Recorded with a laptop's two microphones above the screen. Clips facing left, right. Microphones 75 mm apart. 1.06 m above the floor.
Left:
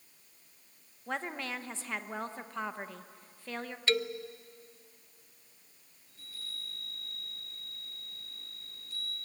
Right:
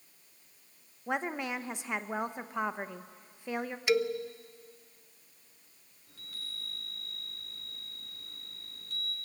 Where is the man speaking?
15° right (ahead or behind), 0.7 m.